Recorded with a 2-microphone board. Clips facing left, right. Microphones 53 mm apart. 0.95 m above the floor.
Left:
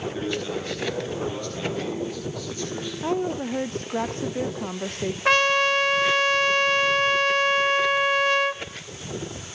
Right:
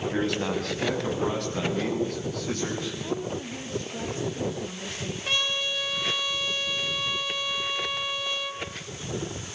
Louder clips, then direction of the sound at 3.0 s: Left 6 dB; 50° left (ahead or behind).